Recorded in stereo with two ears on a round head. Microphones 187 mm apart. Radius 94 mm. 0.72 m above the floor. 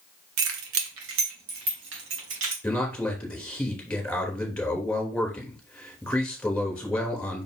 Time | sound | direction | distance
0.4 | keys jangling | 75° right (ahead or behind) | 1.5 m
2.6 | a man speaking | 5° left (ahead or behind) | 3 m